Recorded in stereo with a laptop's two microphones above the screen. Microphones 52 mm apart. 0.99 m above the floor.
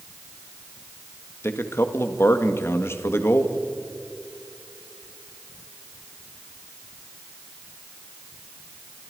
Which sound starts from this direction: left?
A man speaking, at 1.4 s.